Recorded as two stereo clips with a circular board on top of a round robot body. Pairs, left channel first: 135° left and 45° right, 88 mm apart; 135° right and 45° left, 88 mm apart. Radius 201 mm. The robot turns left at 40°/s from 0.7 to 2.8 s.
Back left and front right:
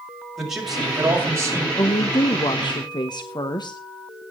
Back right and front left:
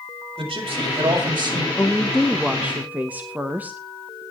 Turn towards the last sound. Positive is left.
turn(degrees=115)